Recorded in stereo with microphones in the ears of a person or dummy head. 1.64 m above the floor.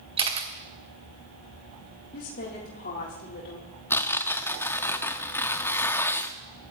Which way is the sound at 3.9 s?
15° left (ahead or behind).